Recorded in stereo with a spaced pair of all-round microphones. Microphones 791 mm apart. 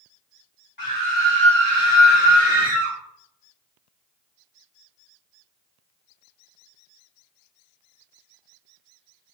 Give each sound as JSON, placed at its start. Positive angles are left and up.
{"t": 0.8, "sound": "a scream", "side_deg": 30, "distance_m": 4.0}